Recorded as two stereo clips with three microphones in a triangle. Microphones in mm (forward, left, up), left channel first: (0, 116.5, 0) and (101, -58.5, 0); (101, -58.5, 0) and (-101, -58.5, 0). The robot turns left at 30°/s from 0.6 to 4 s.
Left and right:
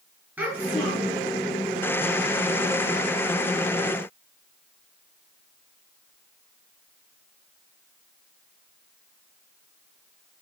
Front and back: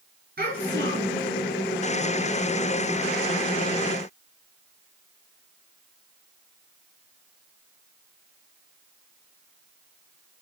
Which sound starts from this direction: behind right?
A child speaking, at 0.4 s.